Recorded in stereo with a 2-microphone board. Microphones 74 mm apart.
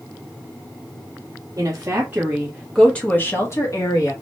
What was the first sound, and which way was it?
A woman speaking, 40° right (ahead or behind).